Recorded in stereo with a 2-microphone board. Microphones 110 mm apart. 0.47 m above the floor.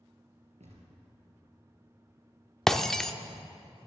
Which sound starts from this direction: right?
A thud, at 0.6 s.